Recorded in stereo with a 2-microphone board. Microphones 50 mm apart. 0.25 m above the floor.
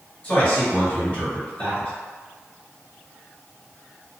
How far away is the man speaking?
About 1.9 m.